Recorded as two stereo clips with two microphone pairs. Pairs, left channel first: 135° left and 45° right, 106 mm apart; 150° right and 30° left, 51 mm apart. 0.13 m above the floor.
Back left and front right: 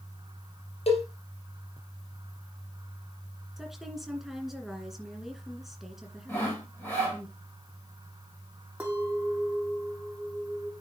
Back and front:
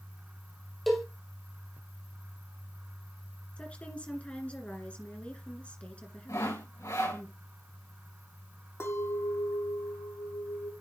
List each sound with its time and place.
0.9 s a cowbell: 120° left, 2.5 m
3.6 s a woman speaking: 125° right, 1.8 m
6.3 s sawing: 150° right, 5.5 m
8.8 s a clink: 120° right, 3 m